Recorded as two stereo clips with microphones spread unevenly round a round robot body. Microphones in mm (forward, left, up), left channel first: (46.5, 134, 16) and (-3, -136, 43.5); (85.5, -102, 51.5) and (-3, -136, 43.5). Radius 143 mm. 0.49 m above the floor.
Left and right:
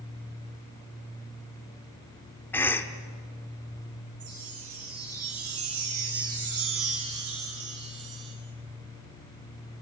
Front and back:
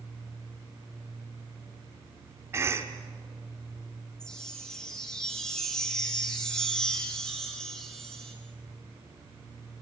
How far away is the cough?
About 0.9 m.